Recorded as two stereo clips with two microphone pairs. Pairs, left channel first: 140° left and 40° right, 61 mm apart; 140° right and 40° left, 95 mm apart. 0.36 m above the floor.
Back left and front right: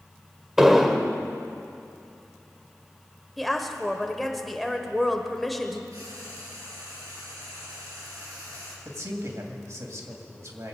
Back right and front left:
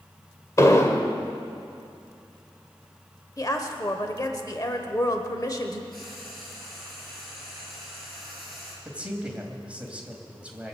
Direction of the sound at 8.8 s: 35° right.